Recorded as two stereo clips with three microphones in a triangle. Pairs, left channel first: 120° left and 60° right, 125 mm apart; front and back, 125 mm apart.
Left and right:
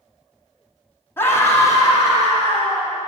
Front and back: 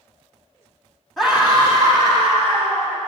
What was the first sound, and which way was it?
A scream, 95° left.